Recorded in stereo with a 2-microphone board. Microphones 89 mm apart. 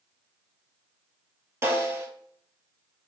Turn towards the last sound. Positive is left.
turn(degrees=-30)  # may be behind; listen again after turning